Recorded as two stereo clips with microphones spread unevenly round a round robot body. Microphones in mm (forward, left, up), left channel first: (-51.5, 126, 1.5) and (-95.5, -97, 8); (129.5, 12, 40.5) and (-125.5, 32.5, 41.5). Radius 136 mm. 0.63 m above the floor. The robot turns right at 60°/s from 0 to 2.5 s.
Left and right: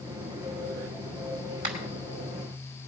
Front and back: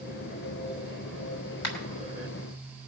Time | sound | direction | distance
1.6 | a finger snap | 35° right | 3.5 m